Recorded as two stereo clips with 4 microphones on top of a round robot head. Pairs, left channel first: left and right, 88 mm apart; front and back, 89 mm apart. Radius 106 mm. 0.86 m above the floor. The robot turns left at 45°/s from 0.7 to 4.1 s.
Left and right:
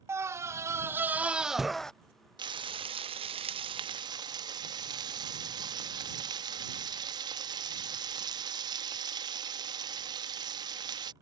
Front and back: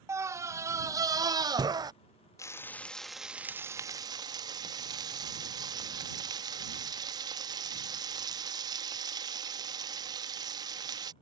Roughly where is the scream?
Behind right.